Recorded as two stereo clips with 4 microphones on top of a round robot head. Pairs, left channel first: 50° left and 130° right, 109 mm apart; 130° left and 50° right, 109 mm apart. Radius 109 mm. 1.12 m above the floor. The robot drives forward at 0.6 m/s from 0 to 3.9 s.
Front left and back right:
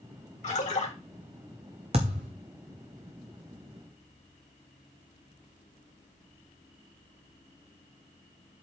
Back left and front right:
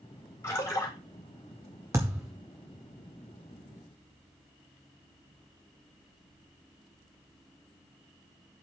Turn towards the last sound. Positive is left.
turn(degrees=-165)